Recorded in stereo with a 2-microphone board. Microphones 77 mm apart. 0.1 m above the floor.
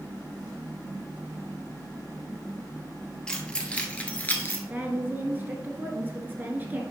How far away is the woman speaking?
About 1.4 m.